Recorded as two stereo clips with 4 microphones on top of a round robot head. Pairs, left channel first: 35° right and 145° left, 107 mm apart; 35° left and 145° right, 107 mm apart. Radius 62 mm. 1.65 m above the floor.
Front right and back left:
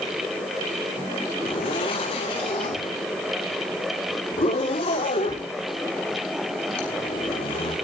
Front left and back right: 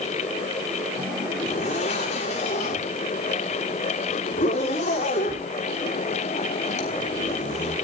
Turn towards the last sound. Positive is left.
turn(degrees=5)